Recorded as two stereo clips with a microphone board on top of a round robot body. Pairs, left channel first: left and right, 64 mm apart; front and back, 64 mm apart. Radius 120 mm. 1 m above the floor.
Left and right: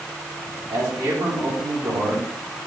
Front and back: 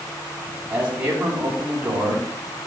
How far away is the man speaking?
About 7.5 m.